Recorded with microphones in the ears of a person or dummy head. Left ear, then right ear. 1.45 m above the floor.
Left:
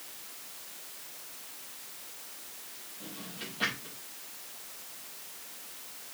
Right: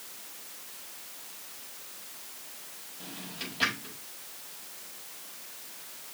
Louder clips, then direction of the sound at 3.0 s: Right 3 dB; 25° right (ahead or behind).